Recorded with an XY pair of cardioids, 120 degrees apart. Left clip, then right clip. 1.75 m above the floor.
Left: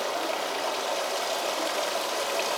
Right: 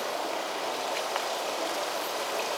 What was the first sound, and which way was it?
Running water, 30° left.